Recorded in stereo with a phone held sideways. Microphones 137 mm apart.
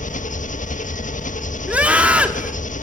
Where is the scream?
10° right (ahead or behind), 3.5 m.